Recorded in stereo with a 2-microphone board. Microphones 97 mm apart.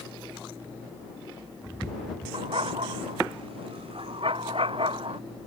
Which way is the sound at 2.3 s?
70° right (ahead or behind).